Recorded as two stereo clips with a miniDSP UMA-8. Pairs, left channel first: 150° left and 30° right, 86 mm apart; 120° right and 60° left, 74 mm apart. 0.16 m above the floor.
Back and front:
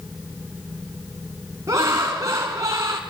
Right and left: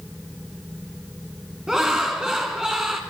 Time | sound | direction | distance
1.7 | laughter | 10° right | 1.6 m